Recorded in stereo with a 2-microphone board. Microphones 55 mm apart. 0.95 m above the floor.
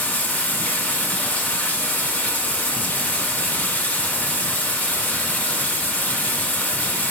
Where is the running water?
30° left (ahead or behind), 1.3 m.